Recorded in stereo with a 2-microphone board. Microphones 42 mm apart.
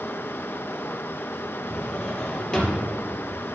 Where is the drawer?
20° left (ahead or behind), 3 m.